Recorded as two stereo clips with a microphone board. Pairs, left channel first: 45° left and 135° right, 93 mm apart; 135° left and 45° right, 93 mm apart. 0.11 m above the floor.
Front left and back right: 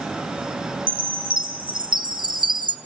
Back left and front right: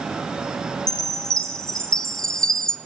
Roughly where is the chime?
Behind right.